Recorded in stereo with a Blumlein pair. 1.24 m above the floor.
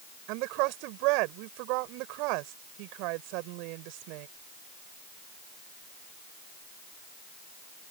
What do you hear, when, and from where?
0.3 s a woman speaking: 45° right